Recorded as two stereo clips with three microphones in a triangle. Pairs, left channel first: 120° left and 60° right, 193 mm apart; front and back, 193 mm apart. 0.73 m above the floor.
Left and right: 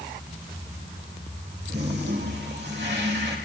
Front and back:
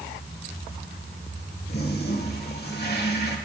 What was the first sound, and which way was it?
A toilet flushing, 35° right.